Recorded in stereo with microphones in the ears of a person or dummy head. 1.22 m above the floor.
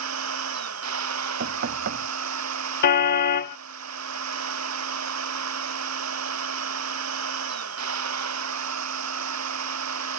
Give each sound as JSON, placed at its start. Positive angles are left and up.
{"t": 0.0, "sound": "a machine running", "side_deg": -80}
{"t": 1.4, "sound": "knocking", "side_deg": -60}
{"t": 2.8, "sound": "a car horn", "side_deg": 60}